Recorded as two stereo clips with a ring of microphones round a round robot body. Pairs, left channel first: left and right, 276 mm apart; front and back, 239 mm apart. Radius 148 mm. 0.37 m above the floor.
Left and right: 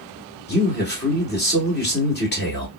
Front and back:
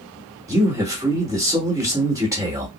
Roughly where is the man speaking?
Left.